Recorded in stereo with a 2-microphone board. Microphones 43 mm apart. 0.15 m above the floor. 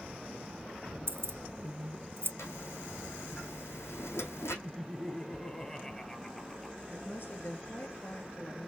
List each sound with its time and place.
1.1 s keys jangling: 60° right (ahead or behind), 1.8 m
2.4 s a zipper: 75° left (ahead or behind), 3 m
4.6 s laughter: 10° left (ahead or behind), 4 m
6.9 s a woman speaking: 50° left (ahead or behind), 2.5 m